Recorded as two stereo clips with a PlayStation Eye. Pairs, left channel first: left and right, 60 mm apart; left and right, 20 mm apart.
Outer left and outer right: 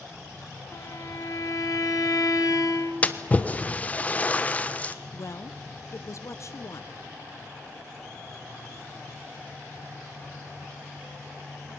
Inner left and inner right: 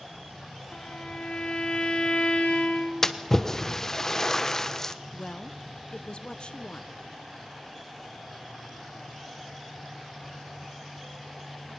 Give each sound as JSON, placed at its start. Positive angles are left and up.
{"t": 0.7, "sound": "a violin", "side_deg": 70, "distance_m": 2.0}
{"t": 3.0, "sound": "a splash", "side_deg": 25, "distance_m": 1.1}
{"t": 5.1, "sound": "a woman speaking", "side_deg": 55, "distance_m": 0.9}